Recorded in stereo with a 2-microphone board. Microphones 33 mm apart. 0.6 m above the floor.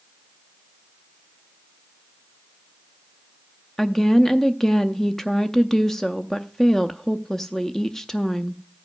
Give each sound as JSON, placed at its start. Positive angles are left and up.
{"t": 3.8, "sound": "a woman speaking", "side_deg": 15, "distance_m": 0.5}